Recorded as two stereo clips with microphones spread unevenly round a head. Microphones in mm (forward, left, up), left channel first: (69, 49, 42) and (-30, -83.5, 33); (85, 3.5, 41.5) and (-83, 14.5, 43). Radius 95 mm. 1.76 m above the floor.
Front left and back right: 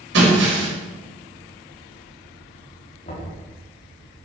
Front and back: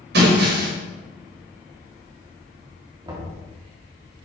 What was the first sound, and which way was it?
Breaking glass, 155° right.